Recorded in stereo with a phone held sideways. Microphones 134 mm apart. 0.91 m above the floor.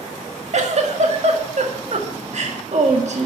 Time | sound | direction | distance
0.5 | a giggle | 60° right (ahead or behind) | 2 m